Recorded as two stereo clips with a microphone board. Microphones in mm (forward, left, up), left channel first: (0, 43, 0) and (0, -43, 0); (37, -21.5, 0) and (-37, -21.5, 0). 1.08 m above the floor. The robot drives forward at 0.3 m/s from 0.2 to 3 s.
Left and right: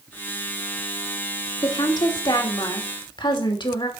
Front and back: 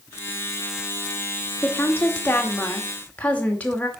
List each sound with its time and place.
1.6 s a woman speaking: 60° left, 2.5 m; by 3.9 s 70° left, 2.5 m